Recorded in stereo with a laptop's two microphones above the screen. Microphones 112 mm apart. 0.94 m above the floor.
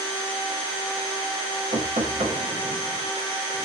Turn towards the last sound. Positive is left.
turn(degrees=-65)  # may be behind; listen again after turning